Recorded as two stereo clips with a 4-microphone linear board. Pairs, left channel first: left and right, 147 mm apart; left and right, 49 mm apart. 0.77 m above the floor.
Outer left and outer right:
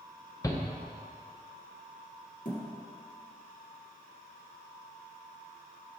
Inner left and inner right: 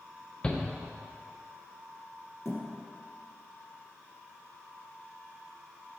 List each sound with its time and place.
0.4 s a shout: 20° left (ahead or behind), 0.6 m
2.5 s a thud: 65° left (ahead or behind), 2 m